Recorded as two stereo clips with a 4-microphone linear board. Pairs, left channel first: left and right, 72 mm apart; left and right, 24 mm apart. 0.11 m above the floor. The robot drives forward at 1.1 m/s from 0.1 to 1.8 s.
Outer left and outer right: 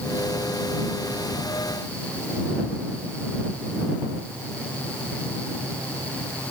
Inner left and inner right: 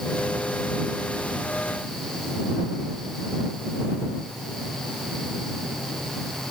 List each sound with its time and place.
Only background noise.